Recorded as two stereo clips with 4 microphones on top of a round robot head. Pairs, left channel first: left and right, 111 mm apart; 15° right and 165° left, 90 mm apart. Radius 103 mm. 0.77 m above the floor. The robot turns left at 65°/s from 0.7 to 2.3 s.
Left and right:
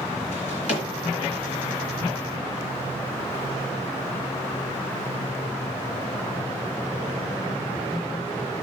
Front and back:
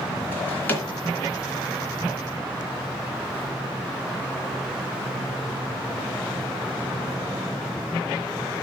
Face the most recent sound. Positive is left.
turn(degrees=-50)